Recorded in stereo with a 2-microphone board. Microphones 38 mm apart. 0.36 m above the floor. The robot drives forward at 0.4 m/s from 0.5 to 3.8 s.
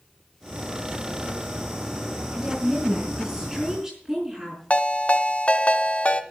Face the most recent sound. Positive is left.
turn(degrees=40)  # may be behind; listen again after turning